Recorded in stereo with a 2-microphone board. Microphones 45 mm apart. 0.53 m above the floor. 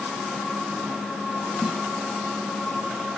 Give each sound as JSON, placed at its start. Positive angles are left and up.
{"t": 1.6, "sound": "a snare drum", "side_deg": -15, "distance_m": 4.0}